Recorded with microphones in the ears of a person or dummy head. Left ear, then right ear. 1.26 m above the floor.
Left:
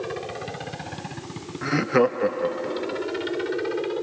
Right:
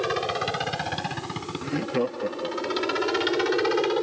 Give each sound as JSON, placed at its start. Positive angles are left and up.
{"t": 0.0, "sound": "a helicopter", "side_deg": -45}
{"t": 1.6, "sound": "laughter", "side_deg": 50}